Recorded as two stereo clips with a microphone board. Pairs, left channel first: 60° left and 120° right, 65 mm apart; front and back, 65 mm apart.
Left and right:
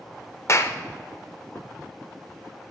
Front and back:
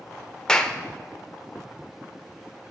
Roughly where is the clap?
Left.